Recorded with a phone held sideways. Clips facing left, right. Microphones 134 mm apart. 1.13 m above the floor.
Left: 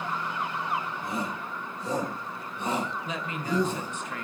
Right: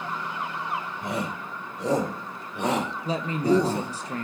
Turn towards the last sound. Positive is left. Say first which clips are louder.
# right 9 dB
turn(degrees=-35)  # may be behind; listen again after turning